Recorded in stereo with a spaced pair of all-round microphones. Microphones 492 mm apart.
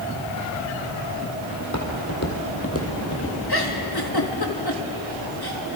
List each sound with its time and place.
1.6 s footsteps: 35° left (ahead or behind), 3 m; by 3.4 s 25° left (ahead or behind), 2.5 m
3.5 s a giggle: 50° left (ahead or behind), 1.8 m